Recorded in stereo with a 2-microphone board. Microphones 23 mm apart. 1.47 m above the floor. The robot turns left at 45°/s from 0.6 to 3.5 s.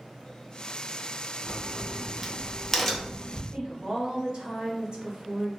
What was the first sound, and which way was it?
A crack, 30° right (ahead or behind).